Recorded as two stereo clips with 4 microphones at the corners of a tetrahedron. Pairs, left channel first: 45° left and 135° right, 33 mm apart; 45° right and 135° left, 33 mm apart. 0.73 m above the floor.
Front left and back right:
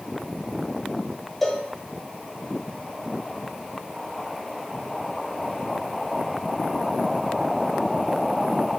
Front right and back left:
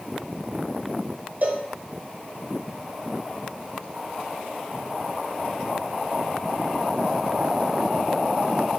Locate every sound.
1.4 s a cowbell: 125° left, 0.6 m